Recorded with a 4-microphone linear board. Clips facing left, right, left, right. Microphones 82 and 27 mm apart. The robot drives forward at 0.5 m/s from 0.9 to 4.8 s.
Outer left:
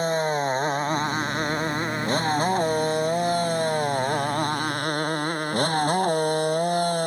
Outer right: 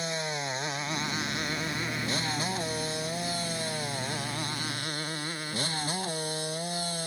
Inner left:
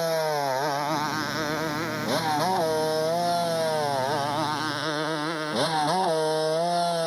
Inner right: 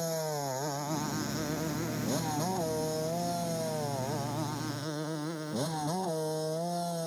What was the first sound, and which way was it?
A motorcycle, 45° left (ahead or behind).